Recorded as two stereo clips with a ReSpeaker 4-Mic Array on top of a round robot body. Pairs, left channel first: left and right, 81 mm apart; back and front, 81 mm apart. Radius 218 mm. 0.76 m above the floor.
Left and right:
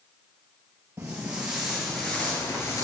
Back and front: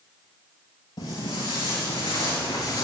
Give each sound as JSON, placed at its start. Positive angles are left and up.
{"t": 1.0, "sound": "footsteps", "azimuth_deg": -160, "distance_m": 1.3}